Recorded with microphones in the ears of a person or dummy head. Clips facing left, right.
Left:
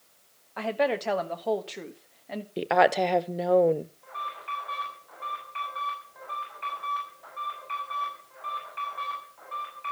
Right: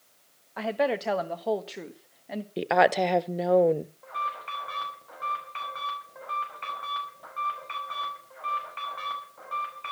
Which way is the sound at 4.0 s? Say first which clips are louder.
Right 3 dB; 50° right (ahead or behind).